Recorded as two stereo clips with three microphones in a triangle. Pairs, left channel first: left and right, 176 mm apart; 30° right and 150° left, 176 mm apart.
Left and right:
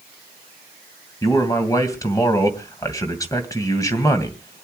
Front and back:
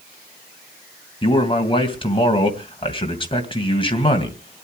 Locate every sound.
1.2 s a man speaking: 20° left, 2.5 m